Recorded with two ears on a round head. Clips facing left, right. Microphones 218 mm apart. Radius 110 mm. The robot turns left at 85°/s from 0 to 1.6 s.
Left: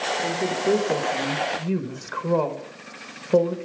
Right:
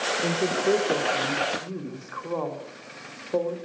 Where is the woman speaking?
155° right, 1.4 m; by 3.5 s 90° left, 1.4 m.